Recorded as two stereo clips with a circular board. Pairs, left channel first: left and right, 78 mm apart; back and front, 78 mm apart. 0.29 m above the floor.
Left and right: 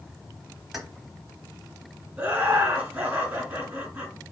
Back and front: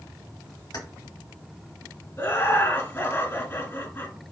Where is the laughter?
150° right, 1.7 m.